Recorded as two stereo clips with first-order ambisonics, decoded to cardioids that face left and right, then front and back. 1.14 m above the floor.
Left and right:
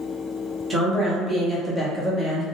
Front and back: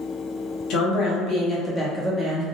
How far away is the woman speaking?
About 1.0 m.